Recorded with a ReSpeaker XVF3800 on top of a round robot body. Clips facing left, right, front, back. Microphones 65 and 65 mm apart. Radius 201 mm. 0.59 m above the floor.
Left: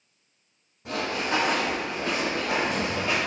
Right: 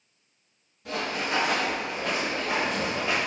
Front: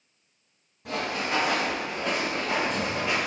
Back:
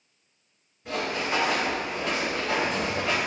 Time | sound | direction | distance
0.8 | running footsteps | 35° left | 1.1 m